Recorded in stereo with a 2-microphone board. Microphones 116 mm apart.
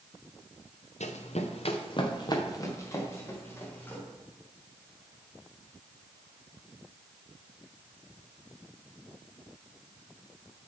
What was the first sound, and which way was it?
Running footsteps, 85° left.